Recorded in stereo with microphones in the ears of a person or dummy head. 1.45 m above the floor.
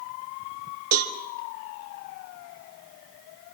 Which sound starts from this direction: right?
A cowbell, at 0.9 s.